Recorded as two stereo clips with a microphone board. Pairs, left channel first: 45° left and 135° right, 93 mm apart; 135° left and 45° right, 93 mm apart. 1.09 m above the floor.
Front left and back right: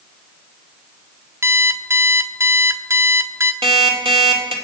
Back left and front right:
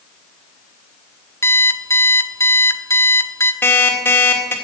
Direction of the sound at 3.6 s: 155° right.